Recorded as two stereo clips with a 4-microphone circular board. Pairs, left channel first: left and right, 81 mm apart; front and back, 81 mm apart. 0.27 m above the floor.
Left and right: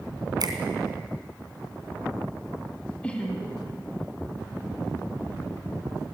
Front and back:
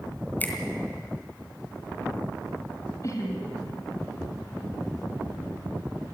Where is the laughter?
20° left, 2 m.